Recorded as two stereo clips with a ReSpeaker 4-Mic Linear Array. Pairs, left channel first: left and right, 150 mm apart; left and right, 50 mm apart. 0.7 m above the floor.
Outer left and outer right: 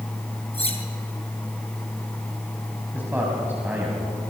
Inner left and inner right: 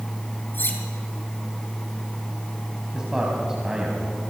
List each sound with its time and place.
0.5 s cutlery clinking: 40° left (ahead or behind), 3.5 m
2.9 s a man speaking: 10° right (ahead or behind), 4 m